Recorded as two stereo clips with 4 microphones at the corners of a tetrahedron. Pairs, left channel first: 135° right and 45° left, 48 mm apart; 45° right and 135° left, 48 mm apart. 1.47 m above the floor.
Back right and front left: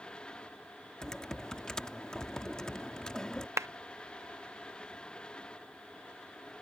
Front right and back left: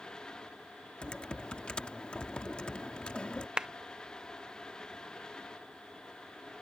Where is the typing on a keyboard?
80° right.